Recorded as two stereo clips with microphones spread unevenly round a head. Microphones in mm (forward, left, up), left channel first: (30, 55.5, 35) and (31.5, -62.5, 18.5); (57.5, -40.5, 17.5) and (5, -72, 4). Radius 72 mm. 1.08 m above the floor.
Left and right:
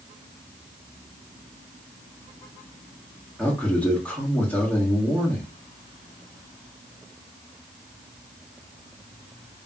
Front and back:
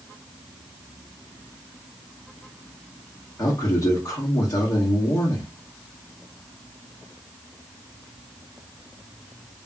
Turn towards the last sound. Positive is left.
turn(degrees=15)